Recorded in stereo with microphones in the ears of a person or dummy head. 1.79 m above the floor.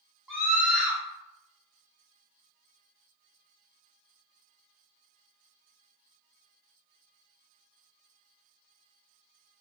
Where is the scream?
5° right (ahead or behind), 1.3 m.